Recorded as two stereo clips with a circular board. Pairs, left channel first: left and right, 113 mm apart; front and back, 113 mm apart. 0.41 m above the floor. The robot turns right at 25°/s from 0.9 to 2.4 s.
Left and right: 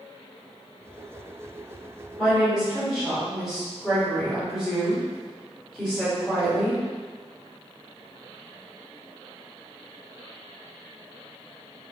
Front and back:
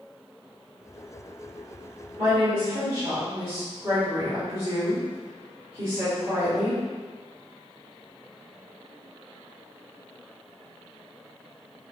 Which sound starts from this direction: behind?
A woman speaking, at 2.2 s.